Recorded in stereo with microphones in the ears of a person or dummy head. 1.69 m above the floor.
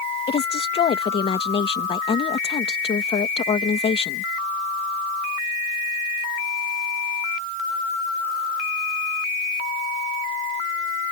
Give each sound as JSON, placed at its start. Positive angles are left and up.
{"t": 0.3, "sound": "a woman speaking", "side_deg": 25}